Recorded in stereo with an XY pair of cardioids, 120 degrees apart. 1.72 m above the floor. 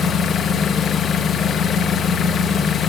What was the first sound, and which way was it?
An engine running, 45° left.